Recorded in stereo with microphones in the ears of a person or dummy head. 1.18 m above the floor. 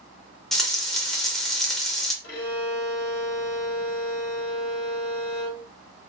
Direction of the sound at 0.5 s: 5° left (ahead or behind).